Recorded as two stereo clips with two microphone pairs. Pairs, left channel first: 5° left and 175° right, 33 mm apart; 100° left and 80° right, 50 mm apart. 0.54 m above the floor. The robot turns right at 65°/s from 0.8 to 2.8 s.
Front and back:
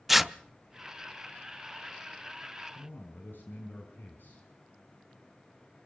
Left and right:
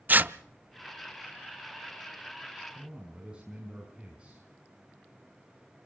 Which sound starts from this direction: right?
Tearing paper, at 0.1 s.